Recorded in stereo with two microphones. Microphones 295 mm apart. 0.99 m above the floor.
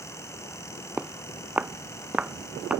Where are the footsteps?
5° right (ahead or behind).